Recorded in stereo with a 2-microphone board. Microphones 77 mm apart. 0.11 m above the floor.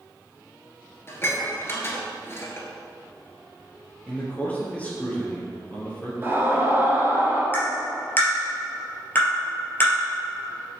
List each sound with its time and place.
1.1 s dishes clattering: 35° left (ahead or behind), 1.3 m
4.1 s a man speaking: 20° left (ahead or behind), 2 m
6.2 s a scream: 30° right (ahead or behind), 2.0 m
7.5 s tapping: 30° left (ahead or behind), 2.5 m